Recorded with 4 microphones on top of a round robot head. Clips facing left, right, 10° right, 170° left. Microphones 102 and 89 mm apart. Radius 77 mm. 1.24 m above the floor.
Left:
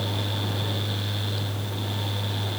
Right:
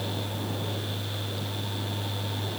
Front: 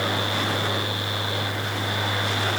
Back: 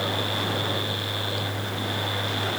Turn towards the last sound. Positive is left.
No sound to turn to.